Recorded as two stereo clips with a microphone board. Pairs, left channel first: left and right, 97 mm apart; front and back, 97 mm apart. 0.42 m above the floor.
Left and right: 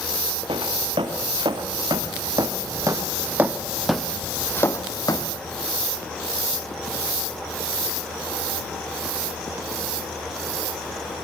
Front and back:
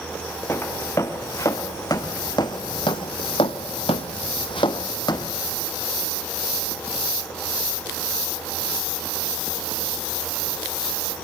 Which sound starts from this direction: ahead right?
Footsteps, at 0.5 s.